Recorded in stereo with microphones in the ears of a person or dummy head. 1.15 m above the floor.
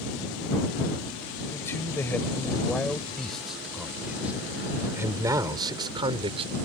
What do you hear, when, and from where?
1.5 s a man speaking: 15° left (ahead or behind); by 6.5 s 30° right (ahead or behind)